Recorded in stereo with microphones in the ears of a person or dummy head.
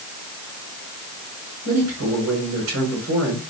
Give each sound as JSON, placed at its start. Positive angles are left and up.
{"t": 1.6, "sound": "a man speaking", "side_deg": -85, "distance_m": 5.0}